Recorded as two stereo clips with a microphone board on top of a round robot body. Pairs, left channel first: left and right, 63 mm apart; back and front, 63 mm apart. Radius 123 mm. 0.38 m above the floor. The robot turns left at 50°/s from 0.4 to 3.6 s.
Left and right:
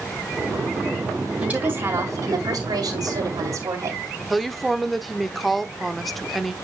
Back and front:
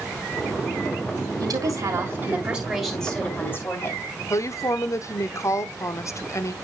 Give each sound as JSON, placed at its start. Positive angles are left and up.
{"t": 1.4, "sound": "a woman speaking", "azimuth_deg": -15, "distance_m": 3.5}
{"t": 4.3, "sound": "a woman speaking", "azimuth_deg": 180, "distance_m": 1.1}